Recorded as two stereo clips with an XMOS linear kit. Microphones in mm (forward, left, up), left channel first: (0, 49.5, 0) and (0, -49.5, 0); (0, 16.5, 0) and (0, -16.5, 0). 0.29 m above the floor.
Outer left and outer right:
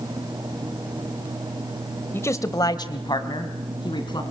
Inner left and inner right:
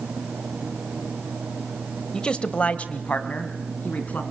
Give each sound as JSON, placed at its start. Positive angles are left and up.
{"t": 2.1, "sound": "a man speaking", "side_deg": 25, "distance_m": 1.1}